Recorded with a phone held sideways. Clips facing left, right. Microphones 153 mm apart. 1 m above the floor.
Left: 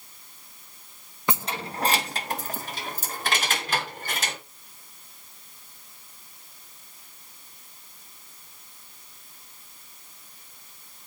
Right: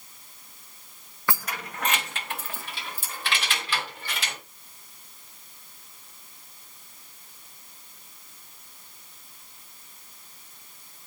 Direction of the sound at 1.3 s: 20° left (ahead or behind).